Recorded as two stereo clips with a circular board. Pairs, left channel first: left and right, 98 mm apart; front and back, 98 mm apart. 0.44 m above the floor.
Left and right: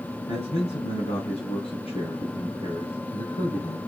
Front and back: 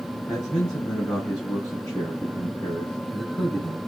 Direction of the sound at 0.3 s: 80° left.